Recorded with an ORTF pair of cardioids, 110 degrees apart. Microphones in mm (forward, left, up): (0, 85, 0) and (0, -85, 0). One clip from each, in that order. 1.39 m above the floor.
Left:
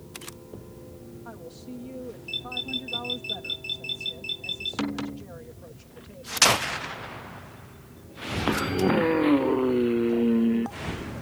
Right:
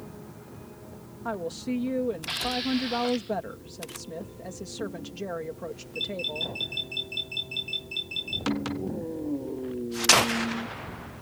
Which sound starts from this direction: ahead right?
A woman speaking, at 1.2 s.